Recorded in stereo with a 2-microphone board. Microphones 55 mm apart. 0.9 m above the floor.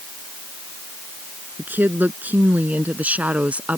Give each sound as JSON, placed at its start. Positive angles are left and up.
{"t": 1.6, "sound": "a woman speaking", "side_deg": -35}